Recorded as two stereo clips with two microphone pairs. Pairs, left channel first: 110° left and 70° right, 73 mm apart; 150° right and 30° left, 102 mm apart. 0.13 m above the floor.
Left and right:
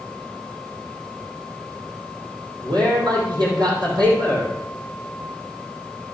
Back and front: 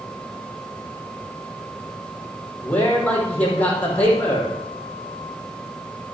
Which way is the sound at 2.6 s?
70° right.